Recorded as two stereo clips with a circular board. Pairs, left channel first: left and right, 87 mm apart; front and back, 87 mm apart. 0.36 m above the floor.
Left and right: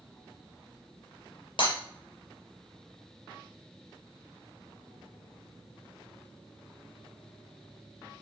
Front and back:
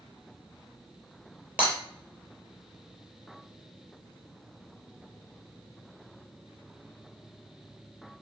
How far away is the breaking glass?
About 4.5 m.